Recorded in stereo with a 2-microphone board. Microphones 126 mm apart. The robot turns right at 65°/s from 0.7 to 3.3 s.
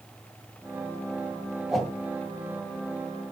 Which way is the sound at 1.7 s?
5° right (ahead or behind).